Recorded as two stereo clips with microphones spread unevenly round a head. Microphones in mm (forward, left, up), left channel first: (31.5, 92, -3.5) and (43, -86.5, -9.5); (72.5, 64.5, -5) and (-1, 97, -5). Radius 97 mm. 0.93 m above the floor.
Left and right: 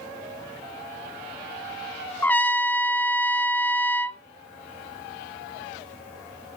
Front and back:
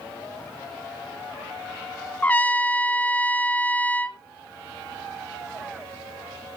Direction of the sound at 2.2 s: 20° left.